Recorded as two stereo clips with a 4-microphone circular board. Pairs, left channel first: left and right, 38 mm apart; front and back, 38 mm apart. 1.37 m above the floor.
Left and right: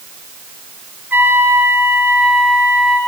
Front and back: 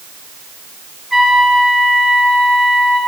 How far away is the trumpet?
About 6.5 m.